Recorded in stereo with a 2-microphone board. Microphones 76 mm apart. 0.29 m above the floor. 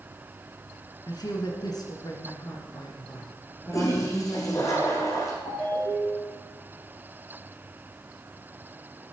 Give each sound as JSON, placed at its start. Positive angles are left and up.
{"t": 1.1, "sound": "a woman speaking", "side_deg": 65, "distance_m": 2.5}
{"t": 3.7, "sound": "a toilet flushing", "side_deg": 45, "distance_m": 3.5}
{"t": 5.5, "sound": "a ringtone", "side_deg": 70, "distance_m": 7.5}